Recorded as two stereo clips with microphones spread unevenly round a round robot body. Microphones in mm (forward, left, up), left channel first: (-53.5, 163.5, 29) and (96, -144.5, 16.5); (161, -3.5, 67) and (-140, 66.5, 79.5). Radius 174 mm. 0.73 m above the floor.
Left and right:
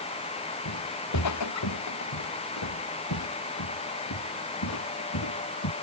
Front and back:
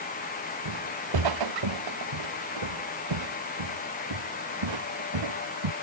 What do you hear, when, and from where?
0.7 s footsteps: 160° left; by 5.7 s 165° left